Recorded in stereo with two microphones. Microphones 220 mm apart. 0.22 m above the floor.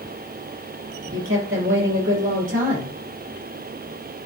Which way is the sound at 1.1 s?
65° right (ahead or behind).